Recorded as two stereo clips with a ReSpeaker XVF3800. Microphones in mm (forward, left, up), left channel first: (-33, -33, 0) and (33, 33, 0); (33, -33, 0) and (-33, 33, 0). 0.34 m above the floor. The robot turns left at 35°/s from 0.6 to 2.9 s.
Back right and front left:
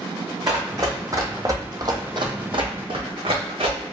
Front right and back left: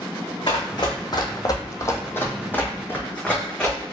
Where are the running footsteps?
5° right, 1.0 m; by 3.9 s 40° left, 1.3 m.